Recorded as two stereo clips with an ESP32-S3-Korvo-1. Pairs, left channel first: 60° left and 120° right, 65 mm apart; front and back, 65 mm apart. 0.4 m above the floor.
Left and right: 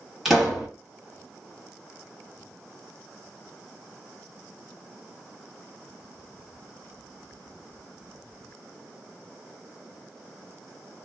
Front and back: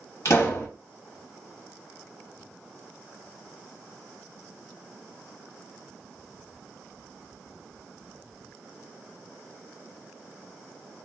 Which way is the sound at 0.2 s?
35° right.